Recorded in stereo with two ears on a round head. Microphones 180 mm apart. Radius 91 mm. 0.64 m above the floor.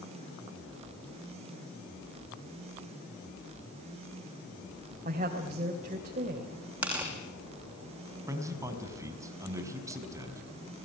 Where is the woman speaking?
35° right (ahead or behind), 3 m.